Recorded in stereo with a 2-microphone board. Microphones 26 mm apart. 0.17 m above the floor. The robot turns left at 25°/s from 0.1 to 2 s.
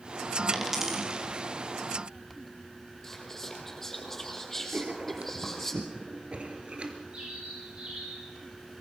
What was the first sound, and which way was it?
A dropped coin, 10° right (ahead or behind).